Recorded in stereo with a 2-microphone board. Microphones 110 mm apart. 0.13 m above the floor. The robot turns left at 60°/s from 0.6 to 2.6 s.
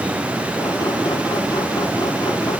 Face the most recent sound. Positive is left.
No sound to turn to.